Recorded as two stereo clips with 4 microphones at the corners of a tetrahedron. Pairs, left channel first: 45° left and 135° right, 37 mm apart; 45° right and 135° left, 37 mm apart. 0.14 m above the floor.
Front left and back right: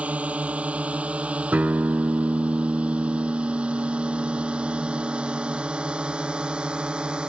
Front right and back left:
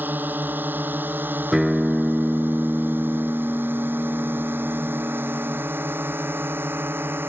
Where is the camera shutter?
No camera shutter in this recording.